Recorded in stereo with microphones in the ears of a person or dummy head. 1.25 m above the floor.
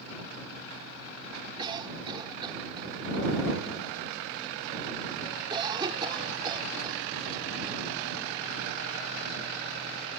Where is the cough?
25° right (ahead or behind).